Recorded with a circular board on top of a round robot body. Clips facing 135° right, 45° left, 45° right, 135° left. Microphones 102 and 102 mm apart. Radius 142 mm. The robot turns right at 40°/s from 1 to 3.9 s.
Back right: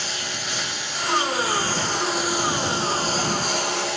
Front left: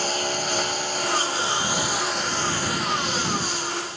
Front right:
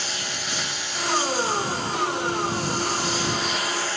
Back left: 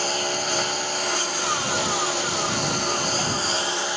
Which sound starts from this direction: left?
A lawn mower, at 0.0 s.